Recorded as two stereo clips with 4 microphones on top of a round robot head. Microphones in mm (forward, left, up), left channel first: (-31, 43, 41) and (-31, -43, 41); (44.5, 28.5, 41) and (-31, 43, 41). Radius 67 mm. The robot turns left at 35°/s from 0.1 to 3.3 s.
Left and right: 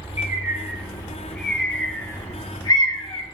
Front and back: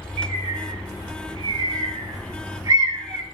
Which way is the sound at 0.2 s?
140° right.